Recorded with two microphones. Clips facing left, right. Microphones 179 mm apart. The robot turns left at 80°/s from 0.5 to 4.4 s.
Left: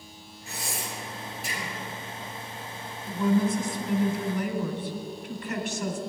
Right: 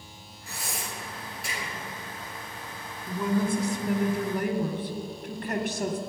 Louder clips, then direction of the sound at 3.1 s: Left 2 dB; 5° left.